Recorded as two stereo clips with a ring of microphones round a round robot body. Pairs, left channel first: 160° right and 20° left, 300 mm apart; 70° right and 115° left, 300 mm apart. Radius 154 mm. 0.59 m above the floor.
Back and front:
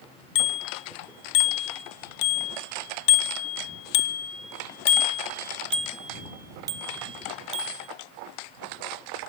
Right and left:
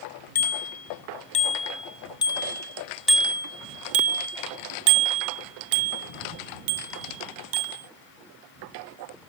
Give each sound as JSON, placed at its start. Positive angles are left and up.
{"t": 0.3, "sound": "a bicycle bell", "azimuth_deg": -130}